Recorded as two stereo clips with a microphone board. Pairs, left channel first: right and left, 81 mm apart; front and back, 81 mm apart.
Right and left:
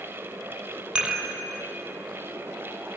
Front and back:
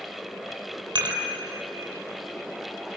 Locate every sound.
0.9 s dishes clattering: 165° left, 3 m